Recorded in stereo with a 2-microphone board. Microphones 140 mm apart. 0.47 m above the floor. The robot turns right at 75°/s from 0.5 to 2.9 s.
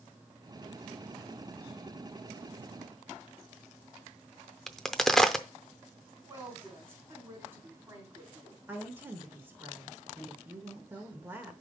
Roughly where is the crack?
Centre.